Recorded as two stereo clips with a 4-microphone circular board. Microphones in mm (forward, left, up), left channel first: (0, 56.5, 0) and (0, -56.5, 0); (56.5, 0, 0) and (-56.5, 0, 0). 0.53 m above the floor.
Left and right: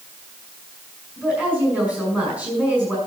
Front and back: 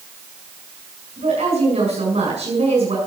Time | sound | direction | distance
1.2 | a woman speaking | 165° right | 6 m